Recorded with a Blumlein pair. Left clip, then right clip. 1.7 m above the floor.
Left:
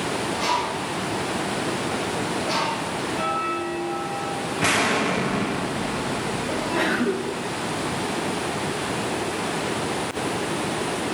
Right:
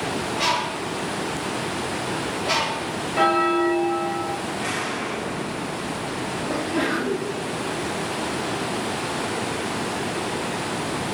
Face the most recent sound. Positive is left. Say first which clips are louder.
# left 1 dB
turn(degrees=10)